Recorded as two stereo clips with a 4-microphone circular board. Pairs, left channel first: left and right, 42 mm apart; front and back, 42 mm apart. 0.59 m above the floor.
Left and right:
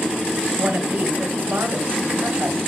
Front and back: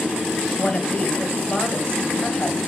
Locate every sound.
0.6 s a woman speaking: 60° right, 2.0 m